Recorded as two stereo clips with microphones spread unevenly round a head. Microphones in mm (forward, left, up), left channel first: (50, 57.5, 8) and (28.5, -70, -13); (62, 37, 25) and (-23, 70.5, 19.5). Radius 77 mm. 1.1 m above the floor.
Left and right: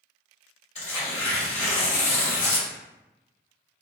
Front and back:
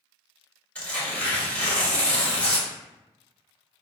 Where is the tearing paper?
50° left, 1.9 m.